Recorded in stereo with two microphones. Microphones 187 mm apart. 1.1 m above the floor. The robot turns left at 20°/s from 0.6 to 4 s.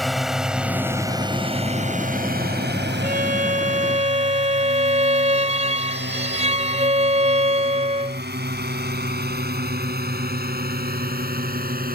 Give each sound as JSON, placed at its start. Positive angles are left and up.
{"t": 0.0, "sound": "a drone", "side_deg": 0}
{"t": 3.0, "sound": "a violin", "side_deg": -55}